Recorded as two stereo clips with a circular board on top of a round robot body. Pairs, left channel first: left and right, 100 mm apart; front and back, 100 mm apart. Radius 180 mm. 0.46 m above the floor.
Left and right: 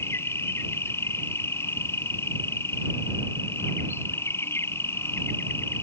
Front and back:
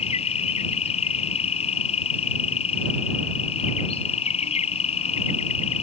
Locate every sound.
0.0 s an insect: 25° left